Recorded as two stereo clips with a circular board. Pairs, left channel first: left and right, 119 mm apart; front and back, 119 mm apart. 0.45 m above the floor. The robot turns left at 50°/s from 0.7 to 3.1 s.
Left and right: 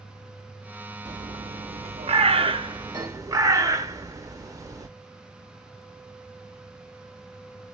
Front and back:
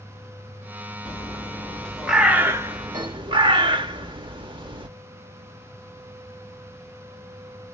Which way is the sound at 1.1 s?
45° right.